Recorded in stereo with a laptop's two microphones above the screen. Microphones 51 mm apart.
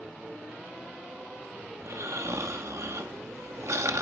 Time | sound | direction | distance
1.8 | snoring | 75° right (ahead or behind) | 1.0 m